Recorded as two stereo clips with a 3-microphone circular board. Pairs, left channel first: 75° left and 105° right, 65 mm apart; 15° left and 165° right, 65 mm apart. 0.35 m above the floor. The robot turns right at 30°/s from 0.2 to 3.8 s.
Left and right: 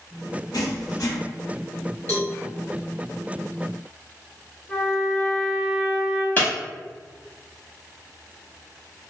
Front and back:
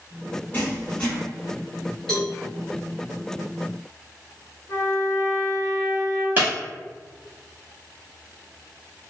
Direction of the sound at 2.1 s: 95° left.